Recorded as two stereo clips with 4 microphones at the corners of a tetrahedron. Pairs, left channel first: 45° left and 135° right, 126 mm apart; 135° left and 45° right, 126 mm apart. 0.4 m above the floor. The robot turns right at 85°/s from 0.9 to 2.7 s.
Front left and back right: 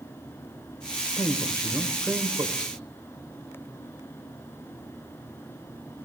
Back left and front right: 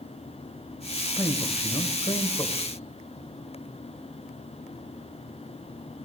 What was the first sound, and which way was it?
A man speaking, 65° left.